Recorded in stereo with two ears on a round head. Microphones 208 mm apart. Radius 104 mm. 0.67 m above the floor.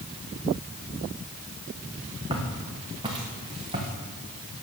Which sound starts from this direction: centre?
Footsteps, at 2.3 s.